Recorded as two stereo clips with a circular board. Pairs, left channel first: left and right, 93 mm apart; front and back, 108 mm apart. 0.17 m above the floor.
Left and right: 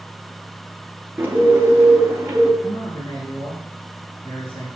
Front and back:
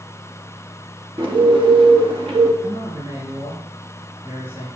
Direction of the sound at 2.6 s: 115° left.